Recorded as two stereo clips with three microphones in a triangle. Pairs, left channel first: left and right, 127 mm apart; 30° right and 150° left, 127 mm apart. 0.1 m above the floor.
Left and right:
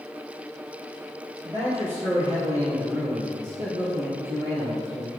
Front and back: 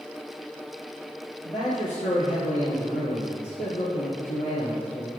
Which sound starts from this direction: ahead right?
A man speaking, at 1.4 s.